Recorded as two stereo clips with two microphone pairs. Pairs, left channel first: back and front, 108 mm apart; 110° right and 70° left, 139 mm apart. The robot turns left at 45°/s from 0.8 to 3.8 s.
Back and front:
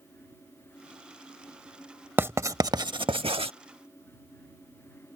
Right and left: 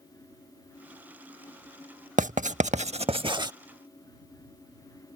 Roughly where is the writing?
Left.